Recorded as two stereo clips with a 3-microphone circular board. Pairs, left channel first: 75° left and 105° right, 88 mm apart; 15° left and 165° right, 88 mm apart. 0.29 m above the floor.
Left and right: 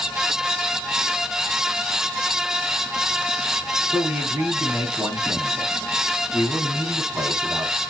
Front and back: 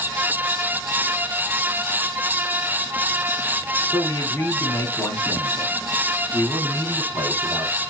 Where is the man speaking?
45° right, 2.5 m.